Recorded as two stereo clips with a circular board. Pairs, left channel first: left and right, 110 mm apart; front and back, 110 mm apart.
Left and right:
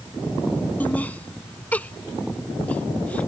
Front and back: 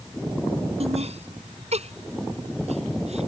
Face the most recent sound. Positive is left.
turn(degrees=165)